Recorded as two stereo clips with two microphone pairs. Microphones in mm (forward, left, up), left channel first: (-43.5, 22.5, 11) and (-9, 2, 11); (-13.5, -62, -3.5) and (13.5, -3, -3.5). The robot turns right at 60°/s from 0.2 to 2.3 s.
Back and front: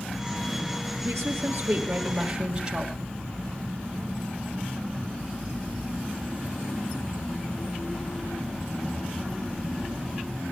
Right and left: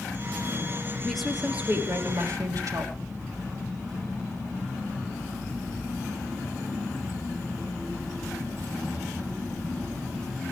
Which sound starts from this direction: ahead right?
A woman speaking, at 1.0 s.